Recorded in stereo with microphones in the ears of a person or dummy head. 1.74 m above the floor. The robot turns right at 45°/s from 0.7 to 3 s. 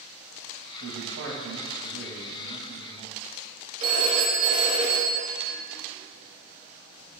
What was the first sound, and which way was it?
A man speaking, 110° right.